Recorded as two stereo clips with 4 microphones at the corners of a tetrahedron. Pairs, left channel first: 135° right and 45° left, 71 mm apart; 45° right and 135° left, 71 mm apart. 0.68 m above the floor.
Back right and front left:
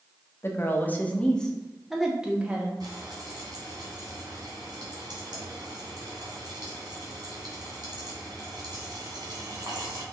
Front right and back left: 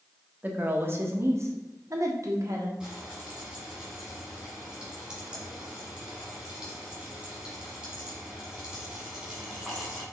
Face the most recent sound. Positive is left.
turn(degrees=55)